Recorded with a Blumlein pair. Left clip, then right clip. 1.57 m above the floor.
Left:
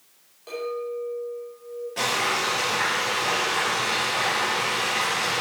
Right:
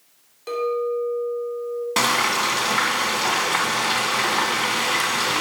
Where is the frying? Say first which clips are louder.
Right 4 dB; 40° right, 2.5 m.